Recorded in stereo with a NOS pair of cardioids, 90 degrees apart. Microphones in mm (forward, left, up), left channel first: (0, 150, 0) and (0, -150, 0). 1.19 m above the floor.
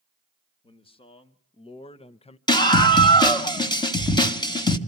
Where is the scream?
15° left, 1.7 m.